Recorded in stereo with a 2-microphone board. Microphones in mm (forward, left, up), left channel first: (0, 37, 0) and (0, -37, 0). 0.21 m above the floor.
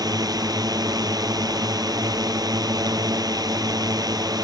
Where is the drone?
65° right (ahead or behind).